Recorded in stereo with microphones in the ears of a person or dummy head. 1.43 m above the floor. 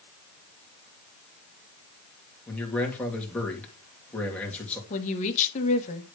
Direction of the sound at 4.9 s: 40° left (ahead or behind).